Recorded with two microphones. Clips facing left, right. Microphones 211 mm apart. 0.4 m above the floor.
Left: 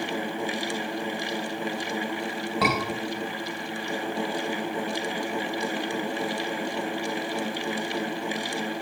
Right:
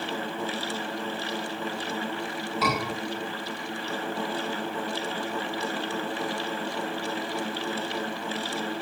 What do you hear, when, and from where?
2.6 s a scream: 70° left (ahead or behind), 4 m